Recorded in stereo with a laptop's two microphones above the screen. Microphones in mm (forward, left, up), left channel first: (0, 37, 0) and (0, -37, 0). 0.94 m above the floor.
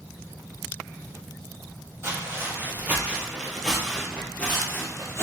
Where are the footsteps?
40° right (ahead or behind), 1.3 m; by 5.2 s 40° left (ahead or behind), 1.3 m.